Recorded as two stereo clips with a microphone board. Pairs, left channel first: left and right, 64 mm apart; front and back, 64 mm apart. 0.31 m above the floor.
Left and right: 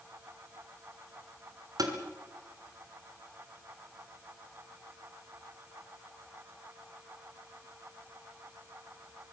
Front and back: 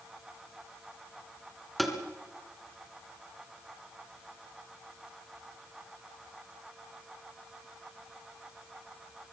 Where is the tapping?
90° right, 3.5 m.